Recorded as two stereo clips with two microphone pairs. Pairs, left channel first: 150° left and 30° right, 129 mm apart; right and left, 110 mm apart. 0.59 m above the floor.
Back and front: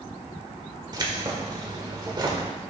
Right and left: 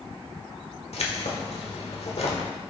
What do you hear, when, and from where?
0.9 s keys jangling: 85° right, 1.4 m